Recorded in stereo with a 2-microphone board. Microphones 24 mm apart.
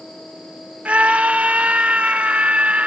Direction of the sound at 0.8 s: 65° right (ahead or behind).